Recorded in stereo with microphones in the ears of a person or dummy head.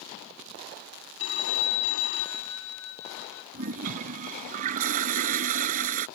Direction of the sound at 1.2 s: 85° left.